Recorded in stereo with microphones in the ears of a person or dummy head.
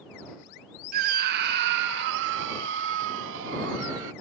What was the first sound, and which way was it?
A scream, 50° right (ahead or behind).